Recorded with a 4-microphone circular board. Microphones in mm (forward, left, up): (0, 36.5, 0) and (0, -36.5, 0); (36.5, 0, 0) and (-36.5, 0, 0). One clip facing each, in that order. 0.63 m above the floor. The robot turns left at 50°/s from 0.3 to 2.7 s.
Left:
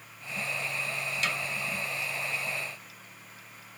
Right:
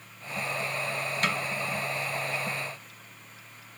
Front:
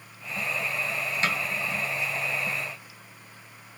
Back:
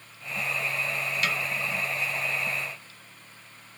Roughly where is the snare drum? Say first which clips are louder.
Right 4 dB, front 2 dB; ahead right.